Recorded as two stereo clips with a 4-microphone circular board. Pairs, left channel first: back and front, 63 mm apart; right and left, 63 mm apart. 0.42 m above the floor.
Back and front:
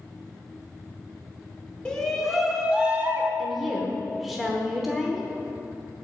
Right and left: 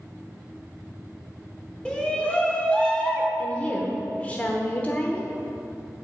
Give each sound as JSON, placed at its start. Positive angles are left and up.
{"t": 1.9, "sound": "a shout", "azimuth_deg": -130, "distance_m": 1.2}
{"t": 3.4, "sound": "a woman speaking", "azimuth_deg": -85, "distance_m": 0.9}